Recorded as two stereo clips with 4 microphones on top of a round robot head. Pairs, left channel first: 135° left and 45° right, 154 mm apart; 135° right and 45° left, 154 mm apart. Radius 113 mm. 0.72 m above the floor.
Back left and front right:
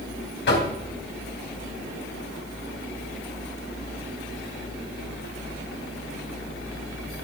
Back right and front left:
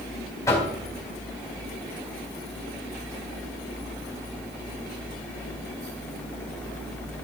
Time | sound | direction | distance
0.5 | knocking | 150° left | 3.5 m